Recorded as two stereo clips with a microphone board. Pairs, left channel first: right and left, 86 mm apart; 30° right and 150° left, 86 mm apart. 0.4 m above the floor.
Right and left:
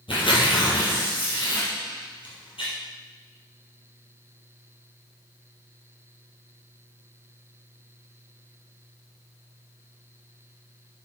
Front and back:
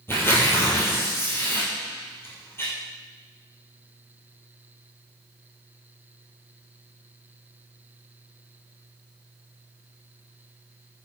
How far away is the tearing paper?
About 3 m.